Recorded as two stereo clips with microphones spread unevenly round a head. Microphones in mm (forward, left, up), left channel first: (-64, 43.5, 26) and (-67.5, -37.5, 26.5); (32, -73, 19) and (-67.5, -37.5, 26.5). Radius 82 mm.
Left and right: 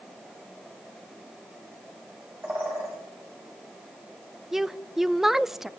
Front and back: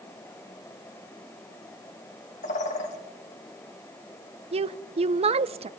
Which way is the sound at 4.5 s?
Straight behind.